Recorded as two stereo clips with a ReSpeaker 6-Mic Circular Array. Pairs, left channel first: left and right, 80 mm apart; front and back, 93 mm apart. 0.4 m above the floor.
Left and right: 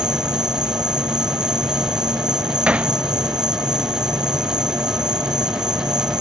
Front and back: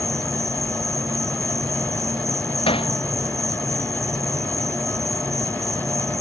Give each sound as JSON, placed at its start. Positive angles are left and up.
{"t": 0.0, "sound": "an insect", "azimuth_deg": -125}
{"t": 2.7, "sound": "hammering", "azimuth_deg": -15}